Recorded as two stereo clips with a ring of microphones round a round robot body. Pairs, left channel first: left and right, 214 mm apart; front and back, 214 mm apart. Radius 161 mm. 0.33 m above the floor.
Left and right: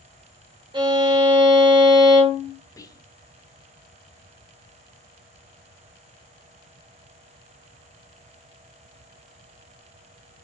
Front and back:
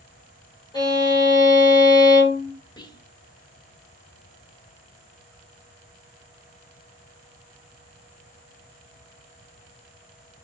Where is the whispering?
40° left, 0.9 m.